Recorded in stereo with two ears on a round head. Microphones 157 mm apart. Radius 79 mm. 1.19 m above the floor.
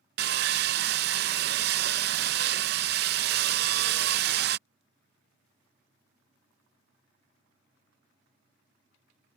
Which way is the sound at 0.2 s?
55° right (ahead or behind).